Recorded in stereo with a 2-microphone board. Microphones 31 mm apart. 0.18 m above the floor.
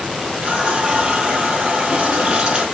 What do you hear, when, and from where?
0.4 s a running tap: 30° right (ahead or behind), 2.5 m